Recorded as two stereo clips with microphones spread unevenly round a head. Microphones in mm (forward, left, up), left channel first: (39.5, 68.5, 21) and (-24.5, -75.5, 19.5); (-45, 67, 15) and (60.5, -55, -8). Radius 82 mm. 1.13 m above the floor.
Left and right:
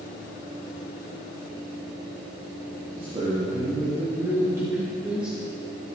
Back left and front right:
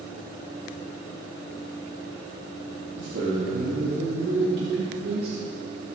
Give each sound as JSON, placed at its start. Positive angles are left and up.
{"t": 3.0, "sound": "a man speaking", "azimuth_deg": -55, "distance_m": 2.5}